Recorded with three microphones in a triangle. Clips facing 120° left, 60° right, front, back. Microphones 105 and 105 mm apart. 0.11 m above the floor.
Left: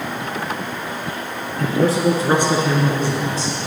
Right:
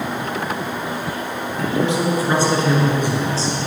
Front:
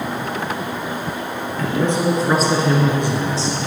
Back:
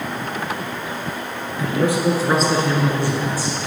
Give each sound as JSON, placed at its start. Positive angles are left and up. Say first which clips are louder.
{"t": 1.6, "sound": "a man speaking", "louder": "left 3 dB, even", "azimuth_deg": 110, "distance_m": 2.0}